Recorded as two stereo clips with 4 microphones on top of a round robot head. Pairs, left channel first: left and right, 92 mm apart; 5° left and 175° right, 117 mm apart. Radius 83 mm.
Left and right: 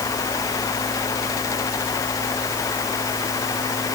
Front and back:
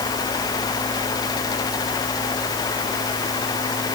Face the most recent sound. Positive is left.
No sound to turn to.